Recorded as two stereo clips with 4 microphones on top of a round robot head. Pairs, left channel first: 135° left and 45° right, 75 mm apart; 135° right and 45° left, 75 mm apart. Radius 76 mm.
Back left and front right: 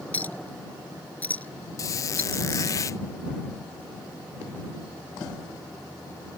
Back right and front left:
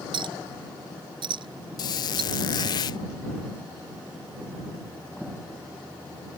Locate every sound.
0.1 s a clink: 65° left
1.8 s a squeak: 170° right